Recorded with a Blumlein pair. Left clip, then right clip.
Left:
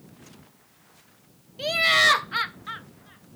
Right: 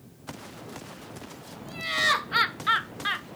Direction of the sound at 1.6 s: 45° left.